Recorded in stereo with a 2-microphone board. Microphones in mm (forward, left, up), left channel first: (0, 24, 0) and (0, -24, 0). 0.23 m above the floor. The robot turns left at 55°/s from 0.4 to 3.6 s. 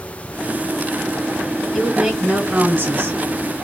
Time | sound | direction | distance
1.7 | a woman speaking | straight ahead | 3 m